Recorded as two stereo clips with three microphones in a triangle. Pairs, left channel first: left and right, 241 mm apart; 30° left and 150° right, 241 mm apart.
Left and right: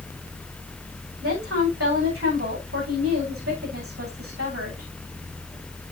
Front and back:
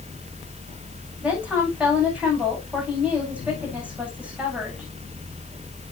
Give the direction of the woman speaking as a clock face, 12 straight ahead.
2 o'clock.